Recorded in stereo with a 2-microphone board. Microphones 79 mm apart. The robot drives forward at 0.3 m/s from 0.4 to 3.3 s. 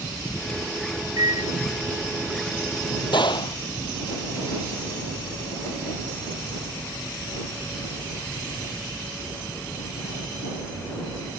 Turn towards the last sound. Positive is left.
turn(degrees=75)  # may be behind; listen again after turning